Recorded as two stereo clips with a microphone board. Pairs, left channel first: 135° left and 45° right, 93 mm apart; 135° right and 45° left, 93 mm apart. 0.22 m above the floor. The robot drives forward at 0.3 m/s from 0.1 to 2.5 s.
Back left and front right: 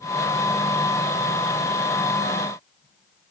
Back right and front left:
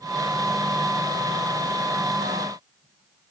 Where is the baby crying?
No baby crying in this recording.